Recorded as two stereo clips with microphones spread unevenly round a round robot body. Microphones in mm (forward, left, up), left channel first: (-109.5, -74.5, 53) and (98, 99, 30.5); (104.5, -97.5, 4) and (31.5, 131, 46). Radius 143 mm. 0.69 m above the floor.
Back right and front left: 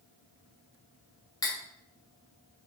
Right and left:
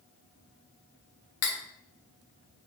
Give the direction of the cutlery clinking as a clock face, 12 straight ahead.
2 o'clock.